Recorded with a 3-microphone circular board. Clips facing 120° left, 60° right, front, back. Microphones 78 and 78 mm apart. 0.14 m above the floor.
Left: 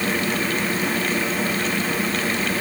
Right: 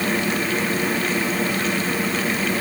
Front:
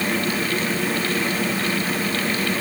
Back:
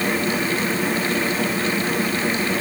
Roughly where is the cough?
No cough in this recording.